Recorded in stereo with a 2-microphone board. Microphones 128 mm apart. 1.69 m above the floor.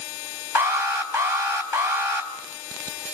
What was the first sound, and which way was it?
An alarm, 20° right (ahead or behind).